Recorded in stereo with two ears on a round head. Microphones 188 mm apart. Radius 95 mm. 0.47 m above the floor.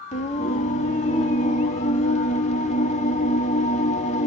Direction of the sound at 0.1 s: 35° left (ahead or behind).